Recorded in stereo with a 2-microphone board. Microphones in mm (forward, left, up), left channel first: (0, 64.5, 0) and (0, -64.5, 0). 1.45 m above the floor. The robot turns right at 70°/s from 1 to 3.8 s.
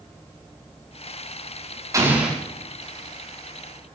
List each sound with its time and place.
1.9 s an explosion: 25° right (ahead or behind), 4.5 m; by 2.4 s centre (ahead or behind), 4.5 m